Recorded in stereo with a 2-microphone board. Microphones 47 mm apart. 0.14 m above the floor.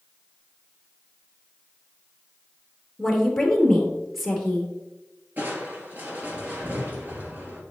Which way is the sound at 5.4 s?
40° right (ahead or behind).